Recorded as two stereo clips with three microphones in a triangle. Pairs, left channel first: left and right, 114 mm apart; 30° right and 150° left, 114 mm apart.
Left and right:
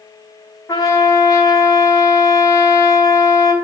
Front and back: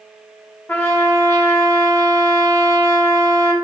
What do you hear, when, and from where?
0.7 s a trumpet: 35° left, 0.6 m